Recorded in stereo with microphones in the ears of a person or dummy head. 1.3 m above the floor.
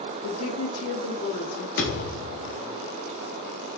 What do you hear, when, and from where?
0.2 s a woman speaking: 80° left, 0.9 m; by 1.7 s 60° left (ahead or behind), 1.2 m
1.8 s a thud: 50° left (ahead or behind), 1.1 m